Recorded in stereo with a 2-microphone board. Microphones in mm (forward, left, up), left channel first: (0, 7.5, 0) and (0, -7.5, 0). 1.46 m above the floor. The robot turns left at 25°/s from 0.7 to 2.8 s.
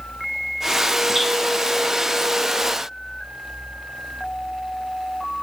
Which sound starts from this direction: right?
Dripping, at 1.1 s.